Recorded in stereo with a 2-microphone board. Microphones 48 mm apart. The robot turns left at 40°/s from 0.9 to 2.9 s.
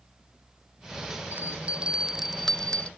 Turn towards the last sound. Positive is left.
turn(degrees=155)